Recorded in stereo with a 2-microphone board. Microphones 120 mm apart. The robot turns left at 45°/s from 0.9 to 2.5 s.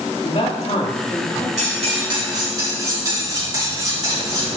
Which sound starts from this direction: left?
A man speaking, at 0.2 s.